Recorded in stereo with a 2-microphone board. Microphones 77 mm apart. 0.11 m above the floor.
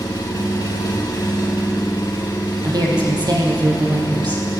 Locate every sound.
0.0 s an engine running: 50° left (ahead or behind), 4 m
2.6 s a woman speaking: 65° right (ahead or behind), 4 m